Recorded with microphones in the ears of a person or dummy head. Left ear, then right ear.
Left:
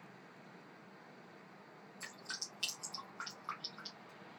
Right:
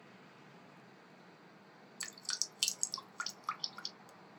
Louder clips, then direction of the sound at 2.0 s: Right 5 dB; 85° right.